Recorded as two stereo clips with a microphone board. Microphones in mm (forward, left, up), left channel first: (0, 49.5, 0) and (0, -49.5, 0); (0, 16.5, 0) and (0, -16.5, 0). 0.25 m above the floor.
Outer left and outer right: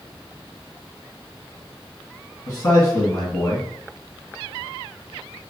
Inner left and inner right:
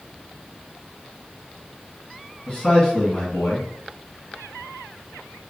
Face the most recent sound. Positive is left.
turn(degrees=40)  # may be behind; listen again after turning